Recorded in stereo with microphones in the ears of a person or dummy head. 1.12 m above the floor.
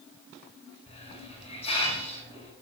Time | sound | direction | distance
0.9 | a hiss | 40° left (ahead or behind) | 8 m